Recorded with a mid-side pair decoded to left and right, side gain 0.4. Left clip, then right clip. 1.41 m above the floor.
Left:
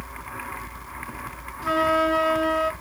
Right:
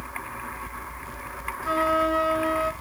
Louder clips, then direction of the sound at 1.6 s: Left 2 dB; 70° left.